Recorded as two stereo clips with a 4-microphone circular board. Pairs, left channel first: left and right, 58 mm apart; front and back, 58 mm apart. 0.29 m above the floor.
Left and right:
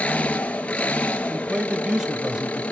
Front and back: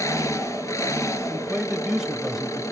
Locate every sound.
0.0 s an engine running: 20° left, 2.5 m
1.3 s a man speaking: 115° right, 0.9 m